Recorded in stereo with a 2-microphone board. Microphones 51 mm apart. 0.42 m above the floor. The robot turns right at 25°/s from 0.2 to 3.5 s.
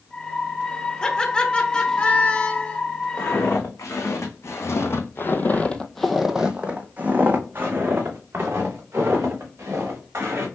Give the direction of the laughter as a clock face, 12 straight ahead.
11 o'clock.